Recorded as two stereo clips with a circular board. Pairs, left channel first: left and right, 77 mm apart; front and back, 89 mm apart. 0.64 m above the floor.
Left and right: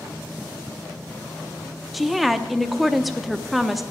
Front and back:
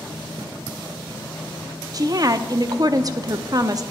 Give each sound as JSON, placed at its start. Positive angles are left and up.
{"t": 1.9, "sound": "a woman speaking", "azimuth_deg": -175, "distance_m": 0.6}